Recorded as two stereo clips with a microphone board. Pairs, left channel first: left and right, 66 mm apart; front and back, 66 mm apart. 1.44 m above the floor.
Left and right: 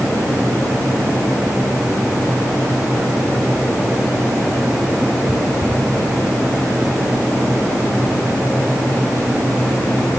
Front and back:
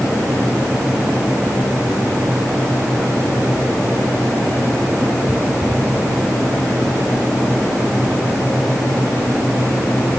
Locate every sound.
Only background noise.